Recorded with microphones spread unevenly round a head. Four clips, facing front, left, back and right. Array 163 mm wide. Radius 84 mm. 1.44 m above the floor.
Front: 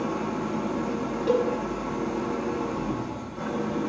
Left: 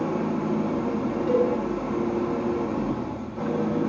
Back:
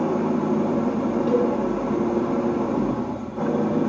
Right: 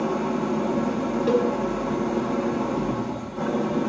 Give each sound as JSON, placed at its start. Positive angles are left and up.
{"t": 0.0, "sound": "an engine running", "azimuth_deg": -170, "distance_m": 1.0}
{"t": 1.3, "sound": "a cowbell", "azimuth_deg": -75, "distance_m": 1.6}